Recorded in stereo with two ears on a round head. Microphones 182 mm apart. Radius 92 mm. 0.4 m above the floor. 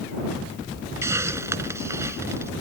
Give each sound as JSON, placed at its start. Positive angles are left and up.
{"t": 1.0, "sound": "a hiss", "side_deg": -15}